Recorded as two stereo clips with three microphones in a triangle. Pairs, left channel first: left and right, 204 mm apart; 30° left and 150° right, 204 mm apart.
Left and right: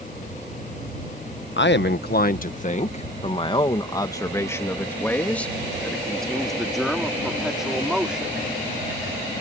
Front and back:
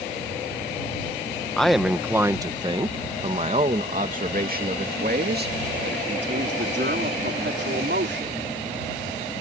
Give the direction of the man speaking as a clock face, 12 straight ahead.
8 o'clock.